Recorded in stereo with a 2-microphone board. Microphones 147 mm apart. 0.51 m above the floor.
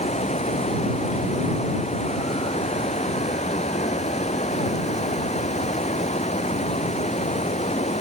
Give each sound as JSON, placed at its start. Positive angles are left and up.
{"t": 0.0, "sound": "running water", "side_deg": 45}